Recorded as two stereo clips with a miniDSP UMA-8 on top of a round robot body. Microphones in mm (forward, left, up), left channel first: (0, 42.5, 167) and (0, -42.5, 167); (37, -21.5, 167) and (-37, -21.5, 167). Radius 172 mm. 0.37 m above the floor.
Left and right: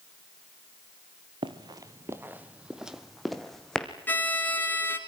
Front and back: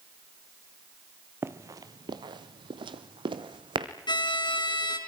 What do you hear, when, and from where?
1.4 s running footsteps: 120° right, 0.8 m; by 3.9 s 175° left, 2 m
4.1 s a violin: 20° left, 3.5 m